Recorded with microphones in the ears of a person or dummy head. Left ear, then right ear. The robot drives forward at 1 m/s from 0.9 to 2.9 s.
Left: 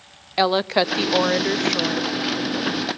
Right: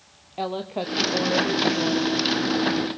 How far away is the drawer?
No drawer in this recording.